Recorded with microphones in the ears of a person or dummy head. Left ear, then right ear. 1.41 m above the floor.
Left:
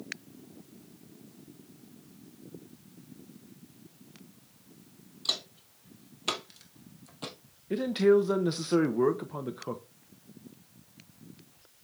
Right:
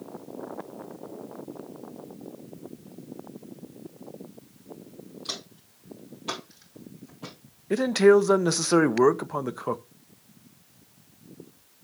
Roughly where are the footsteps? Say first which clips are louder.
Left 5 dB; left.